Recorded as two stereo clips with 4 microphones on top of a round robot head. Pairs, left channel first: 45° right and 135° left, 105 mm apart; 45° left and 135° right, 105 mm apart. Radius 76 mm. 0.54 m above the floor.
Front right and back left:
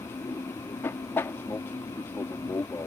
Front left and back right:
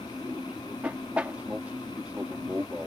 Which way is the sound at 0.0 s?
75° right.